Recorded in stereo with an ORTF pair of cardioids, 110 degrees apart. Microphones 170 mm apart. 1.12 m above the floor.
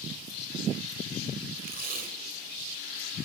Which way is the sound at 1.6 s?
65° right.